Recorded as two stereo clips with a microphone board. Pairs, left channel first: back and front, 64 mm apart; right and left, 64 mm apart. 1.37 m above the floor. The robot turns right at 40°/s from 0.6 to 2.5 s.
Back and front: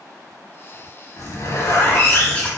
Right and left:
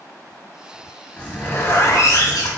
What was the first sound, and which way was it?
A zipper, 160° right.